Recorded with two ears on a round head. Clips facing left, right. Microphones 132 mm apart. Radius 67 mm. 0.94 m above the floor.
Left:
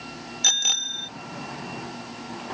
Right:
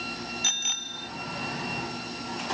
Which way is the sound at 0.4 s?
55° left (ahead or behind).